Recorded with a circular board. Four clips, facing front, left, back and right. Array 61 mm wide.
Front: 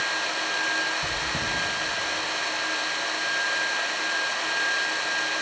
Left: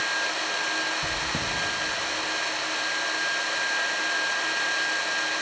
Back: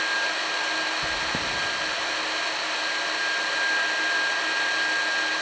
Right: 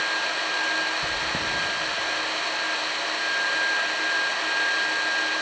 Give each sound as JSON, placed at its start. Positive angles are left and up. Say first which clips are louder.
{"t": 1.0, "sound": "chewing", "louder": "right 2 dB, back 1 dB", "azimuth_deg": -175, "distance_m": 0.9}